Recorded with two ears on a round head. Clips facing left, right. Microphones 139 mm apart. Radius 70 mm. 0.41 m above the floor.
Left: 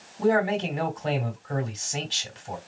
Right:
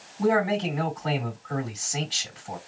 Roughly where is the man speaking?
Left.